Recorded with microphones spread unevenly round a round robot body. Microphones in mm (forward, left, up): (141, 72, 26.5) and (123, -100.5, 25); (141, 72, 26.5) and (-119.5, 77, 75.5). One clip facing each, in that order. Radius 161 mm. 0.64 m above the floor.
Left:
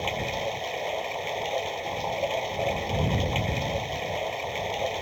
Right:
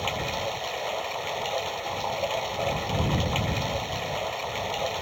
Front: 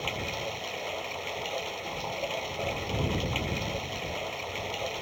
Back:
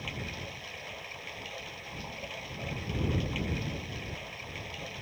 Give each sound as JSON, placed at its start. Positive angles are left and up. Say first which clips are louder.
{"t": 0.0, "sound": "running water", "louder": "left 1 dB, front 6 dB", "azimuth_deg": 15}